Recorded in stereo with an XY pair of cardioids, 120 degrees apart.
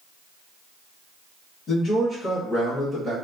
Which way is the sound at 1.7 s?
60° left.